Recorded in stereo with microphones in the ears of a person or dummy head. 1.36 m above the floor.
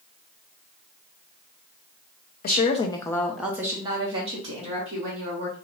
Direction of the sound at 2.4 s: 45° left (ahead or behind).